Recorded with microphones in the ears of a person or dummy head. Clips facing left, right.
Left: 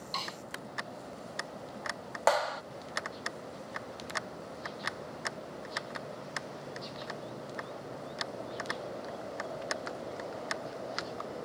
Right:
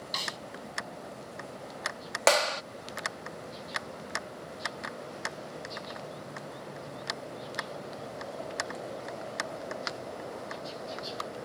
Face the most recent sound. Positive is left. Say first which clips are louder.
# right 3 dB
turn(degrees=-40)  # may be behind; listen again after turning